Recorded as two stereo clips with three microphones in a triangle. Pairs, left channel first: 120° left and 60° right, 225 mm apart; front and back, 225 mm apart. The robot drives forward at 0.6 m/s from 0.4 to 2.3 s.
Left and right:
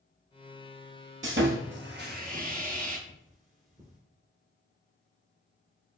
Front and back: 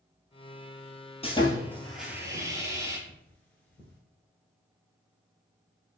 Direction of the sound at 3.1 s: 80° right.